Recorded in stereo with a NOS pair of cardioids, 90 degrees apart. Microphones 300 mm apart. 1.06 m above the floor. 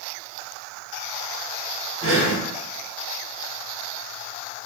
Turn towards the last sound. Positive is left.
turn(degrees=-50)